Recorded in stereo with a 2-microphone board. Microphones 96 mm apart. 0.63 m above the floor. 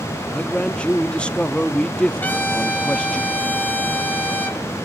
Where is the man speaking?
10° left (ahead or behind), 0.5 m.